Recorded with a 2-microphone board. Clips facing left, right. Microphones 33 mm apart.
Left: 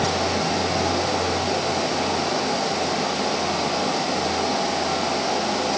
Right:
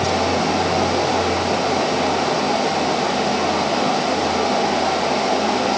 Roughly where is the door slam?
No door slam in this recording.